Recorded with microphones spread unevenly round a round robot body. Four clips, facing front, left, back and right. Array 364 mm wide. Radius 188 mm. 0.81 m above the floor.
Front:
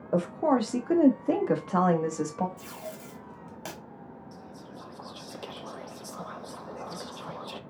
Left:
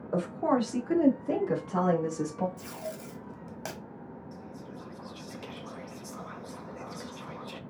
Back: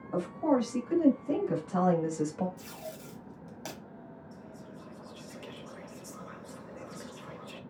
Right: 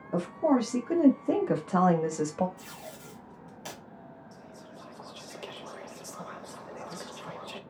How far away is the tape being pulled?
About 0.8 m.